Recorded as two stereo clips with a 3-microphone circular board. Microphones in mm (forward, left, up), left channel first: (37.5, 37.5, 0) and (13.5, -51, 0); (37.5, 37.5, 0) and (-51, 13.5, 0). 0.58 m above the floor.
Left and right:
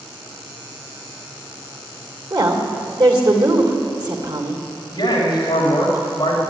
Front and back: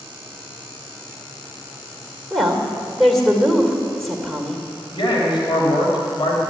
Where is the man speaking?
40° left, 3 m.